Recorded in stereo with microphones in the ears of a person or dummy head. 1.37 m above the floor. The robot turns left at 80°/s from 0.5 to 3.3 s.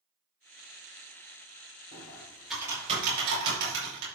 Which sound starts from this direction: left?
Typing on a keyboard, at 1.9 s.